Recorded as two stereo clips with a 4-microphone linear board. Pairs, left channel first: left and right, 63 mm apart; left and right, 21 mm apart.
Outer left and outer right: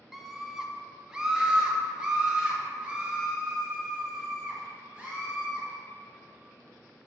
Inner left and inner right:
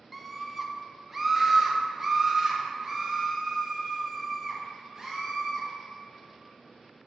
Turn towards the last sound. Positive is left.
turn(degrees=-20)  # may be behind; listen again after turning